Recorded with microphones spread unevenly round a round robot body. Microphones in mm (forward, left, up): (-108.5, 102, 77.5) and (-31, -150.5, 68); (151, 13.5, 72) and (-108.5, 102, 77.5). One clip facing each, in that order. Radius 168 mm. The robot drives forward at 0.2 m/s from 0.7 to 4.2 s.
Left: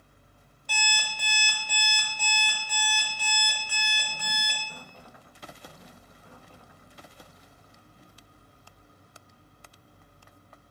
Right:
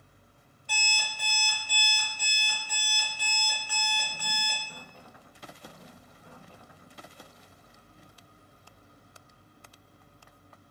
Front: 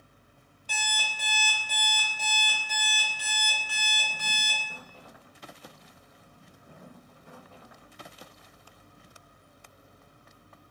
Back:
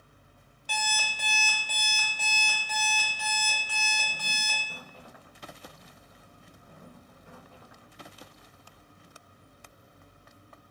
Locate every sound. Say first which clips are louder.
0.7 s an alarm clock: left 3 dB, back 3 dB; 130° left, 0.7 m; by 4.6 s 155° left, 1.2 m